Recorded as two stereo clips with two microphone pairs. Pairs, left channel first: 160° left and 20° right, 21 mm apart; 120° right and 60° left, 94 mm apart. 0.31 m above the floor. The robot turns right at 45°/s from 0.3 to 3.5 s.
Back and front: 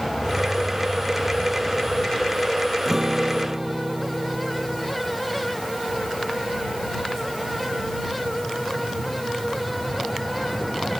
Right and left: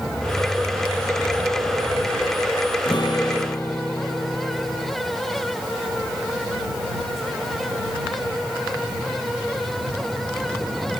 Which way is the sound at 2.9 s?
90° right.